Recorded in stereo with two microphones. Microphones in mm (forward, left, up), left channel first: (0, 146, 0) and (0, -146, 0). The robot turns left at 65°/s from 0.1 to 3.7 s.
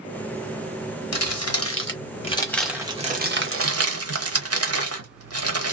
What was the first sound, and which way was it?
Crumpling, 60° left (ahead or behind).